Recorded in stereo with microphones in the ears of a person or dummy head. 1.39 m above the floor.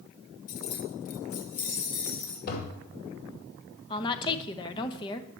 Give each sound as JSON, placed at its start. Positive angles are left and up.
{"t": 0.5, "sound": "keys jangling", "side_deg": 50, "distance_m": 1.1}
{"t": 2.5, "sound": "a toilet flushing", "side_deg": 55, "distance_m": 2.5}
{"t": 3.9, "sound": "a woman speaking", "side_deg": 25, "distance_m": 1.0}